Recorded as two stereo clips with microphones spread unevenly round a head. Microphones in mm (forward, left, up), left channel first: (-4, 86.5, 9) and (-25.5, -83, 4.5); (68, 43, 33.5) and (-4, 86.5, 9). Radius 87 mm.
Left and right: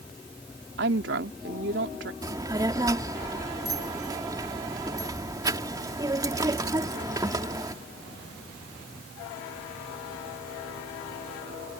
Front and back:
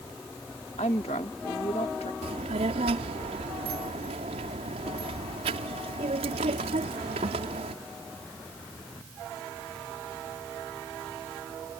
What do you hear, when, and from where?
0.8 s a woman speaking: 65° right
2.2 s a child speaking: 165° right